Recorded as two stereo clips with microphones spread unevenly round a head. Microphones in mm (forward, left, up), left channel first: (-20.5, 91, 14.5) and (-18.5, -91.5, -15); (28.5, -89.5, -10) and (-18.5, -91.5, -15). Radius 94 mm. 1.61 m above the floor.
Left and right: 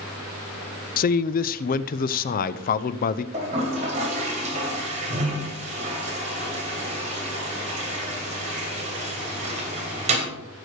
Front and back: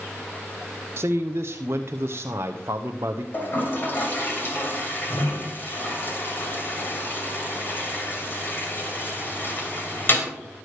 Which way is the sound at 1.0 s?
125° left.